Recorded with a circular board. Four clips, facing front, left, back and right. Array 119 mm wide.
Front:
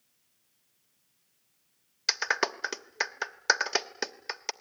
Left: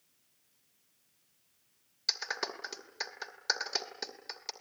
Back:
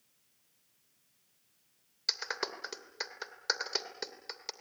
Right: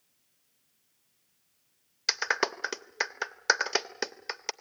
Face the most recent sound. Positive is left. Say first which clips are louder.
# right 9 dB, front 9 dB
turn(degrees=-50)